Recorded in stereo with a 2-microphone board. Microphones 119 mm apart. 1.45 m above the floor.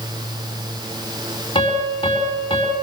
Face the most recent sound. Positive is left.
turn(degrees=45)  # may be behind; listen again after turning